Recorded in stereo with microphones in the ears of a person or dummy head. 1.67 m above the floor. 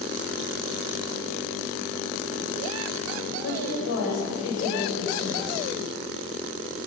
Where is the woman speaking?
90° left, 8.5 m.